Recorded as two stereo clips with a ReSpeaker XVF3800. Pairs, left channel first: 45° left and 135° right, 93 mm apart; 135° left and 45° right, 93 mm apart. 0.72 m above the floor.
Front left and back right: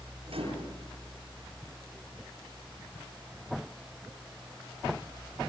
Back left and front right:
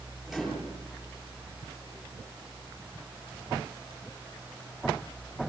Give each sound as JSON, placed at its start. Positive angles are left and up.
{"t": 0.3, "sound": "a microwave", "azimuth_deg": -135, "distance_m": 10.0}